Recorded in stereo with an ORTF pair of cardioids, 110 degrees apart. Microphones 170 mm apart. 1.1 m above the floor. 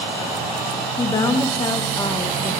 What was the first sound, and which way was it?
A woman speaking, 25° left.